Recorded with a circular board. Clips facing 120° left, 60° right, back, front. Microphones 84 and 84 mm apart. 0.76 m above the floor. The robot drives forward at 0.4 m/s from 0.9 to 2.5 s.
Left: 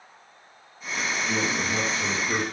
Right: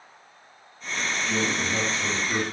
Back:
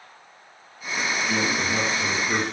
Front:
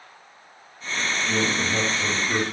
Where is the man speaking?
65° left, 0.6 m; by 2.4 s 125° left, 0.7 m.